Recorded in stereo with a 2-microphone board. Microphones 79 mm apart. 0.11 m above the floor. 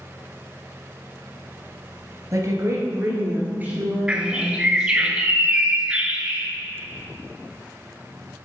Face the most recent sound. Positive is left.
turn(degrees=-15)  # may be behind; listen again after turning